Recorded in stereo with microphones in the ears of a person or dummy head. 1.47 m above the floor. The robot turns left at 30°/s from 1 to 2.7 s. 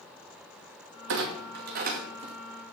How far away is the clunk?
About 2 m.